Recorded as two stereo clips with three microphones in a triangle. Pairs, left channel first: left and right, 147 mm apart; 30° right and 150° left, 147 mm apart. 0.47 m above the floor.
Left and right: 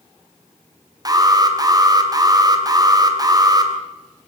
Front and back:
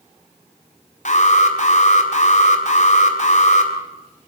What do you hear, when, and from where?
1.1 s an alarm: 30° right, 3 m